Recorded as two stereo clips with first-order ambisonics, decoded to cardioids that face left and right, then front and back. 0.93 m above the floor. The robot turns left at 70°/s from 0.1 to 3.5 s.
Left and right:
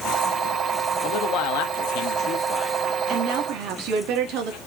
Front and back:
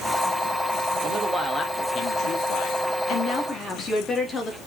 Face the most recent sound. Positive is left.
turn(degrees=-70)